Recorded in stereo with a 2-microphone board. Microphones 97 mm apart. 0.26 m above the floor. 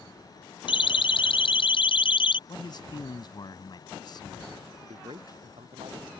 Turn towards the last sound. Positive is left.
turn(degrees=-70)  # may be behind; listen again after turning